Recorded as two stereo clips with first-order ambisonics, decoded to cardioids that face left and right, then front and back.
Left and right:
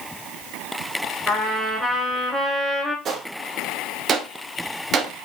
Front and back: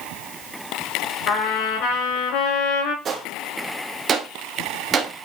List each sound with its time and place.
1.3 s a trumpet: 10° right, 3.5 m
3.0 s a gunshot: 135° right, 1.2 m